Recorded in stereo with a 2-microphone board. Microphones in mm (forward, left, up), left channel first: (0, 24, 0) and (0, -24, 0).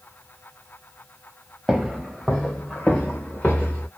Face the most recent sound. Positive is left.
turn(degrees=30)  # may be behind; listen again after turning